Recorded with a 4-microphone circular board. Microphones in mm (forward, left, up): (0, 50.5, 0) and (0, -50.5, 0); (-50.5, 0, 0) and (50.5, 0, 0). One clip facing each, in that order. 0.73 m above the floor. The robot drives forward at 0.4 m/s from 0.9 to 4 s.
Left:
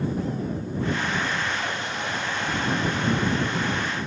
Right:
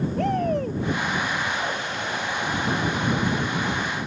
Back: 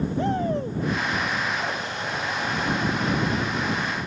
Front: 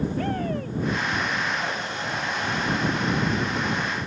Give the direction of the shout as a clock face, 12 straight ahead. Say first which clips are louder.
Right 6 dB, back 3 dB; 4 o'clock.